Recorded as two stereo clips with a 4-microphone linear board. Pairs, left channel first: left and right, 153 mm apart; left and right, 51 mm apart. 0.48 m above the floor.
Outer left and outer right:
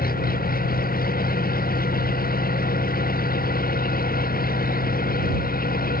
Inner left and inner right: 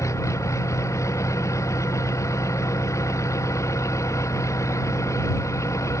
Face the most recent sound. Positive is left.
turn(degrees=75)  # may be behind; listen again after turning